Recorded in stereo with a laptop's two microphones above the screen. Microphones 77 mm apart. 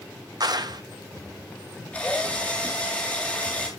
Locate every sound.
0.4 s a clap: 60° right (ahead or behind), 0.8 m
1.9 s a drill: 20° left (ahead or behind), 3 m